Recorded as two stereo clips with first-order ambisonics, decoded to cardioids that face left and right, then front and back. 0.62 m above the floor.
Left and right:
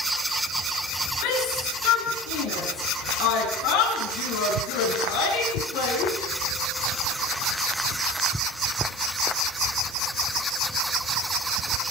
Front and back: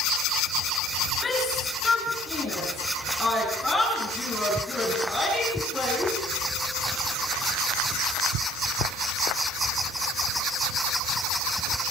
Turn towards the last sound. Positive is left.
turn(degrees=85)